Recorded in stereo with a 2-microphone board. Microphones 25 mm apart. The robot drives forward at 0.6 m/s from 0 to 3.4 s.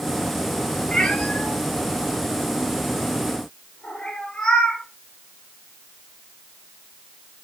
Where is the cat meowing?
45° left (ahead or behind), 5 m; by 4.8 s 35° left (ahead or behind), 6 m.